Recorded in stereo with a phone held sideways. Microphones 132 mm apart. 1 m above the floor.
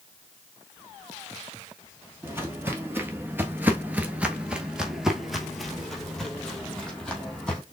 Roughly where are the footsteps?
Centre.